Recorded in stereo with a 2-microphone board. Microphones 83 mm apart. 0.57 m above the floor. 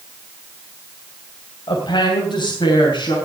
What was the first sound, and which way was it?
A woman speaking, 70° left (ahead or behind).